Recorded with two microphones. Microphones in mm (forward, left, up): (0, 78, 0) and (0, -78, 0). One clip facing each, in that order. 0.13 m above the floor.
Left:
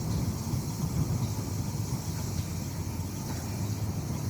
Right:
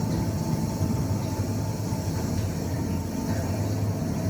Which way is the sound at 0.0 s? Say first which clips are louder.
Right 6 dB; 80° right.